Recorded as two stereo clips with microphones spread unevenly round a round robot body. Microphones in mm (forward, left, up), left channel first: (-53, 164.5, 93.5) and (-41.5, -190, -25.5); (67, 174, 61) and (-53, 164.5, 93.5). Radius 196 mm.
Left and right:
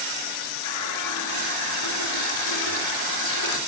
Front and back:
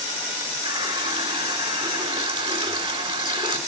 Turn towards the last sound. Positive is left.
turn(degrees=135)